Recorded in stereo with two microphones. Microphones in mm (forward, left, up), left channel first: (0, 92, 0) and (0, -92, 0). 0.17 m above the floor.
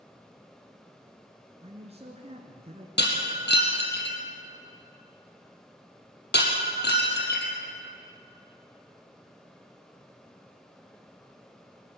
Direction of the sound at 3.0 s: 75° left (ahead or behind).